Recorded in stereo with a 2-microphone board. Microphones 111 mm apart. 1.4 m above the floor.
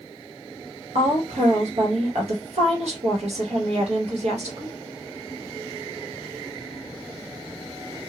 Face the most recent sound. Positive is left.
turn(degrees=-80)